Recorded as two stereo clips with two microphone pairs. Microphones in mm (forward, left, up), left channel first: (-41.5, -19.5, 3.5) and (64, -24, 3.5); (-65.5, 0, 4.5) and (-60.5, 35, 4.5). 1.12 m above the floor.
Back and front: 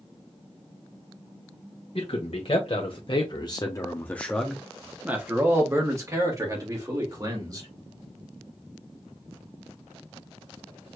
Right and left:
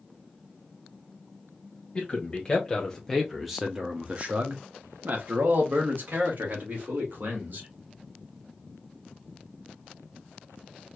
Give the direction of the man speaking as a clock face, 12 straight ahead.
5 o'clock.